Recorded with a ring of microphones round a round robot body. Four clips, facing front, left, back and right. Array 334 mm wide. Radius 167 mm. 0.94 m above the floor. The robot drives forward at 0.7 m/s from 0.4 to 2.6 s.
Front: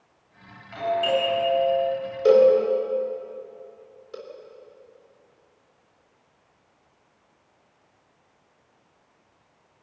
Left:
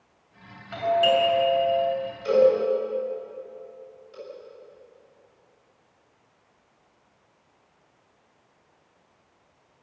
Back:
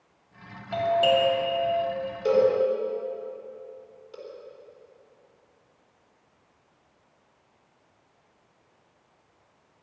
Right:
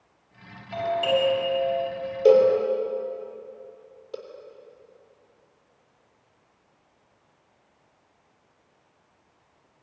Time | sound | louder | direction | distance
0.7 | a doorbell | left 3 dB, back 2 dB | 160° left | 7 m
2.2 | a cowbell | right 2 dB, front 5 dB | 60° right | 4 m